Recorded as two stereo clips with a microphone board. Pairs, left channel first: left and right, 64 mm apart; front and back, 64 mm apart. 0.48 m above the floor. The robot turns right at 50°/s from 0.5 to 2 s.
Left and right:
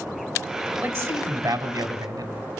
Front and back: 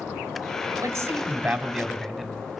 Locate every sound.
0.8 s a man speaking: 145° right, 3.5 m; by 2.3 s 85° right, 3.5 m